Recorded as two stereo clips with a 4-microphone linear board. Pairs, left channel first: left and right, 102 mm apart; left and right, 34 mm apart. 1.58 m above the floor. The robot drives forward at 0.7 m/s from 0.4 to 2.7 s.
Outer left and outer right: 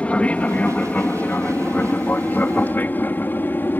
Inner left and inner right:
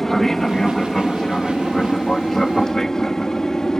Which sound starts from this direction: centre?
An aircraft, at 0.0 s.